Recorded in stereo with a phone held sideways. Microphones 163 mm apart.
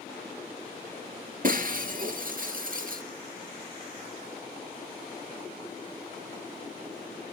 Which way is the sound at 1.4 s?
60° right (ahead or behind).